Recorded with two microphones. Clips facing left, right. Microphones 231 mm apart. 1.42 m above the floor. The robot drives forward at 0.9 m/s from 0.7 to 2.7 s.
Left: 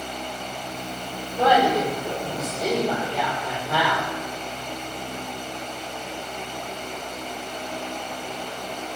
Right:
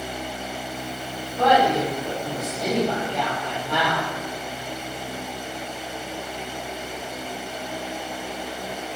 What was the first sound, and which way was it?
A woman speaking, 10° left (ahead or behind).